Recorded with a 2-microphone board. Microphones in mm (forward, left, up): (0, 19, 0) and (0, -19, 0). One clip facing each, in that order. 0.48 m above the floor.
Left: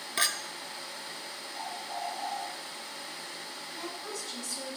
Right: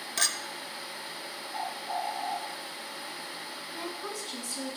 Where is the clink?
15° left (ahead or behind), 0.6 m.